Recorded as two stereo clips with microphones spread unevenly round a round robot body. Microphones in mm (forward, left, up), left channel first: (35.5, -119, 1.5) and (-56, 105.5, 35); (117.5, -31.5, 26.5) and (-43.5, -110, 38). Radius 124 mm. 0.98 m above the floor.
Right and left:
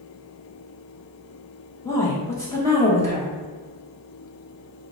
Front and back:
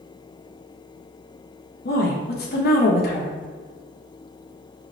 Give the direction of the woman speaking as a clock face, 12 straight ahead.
12 o'clock.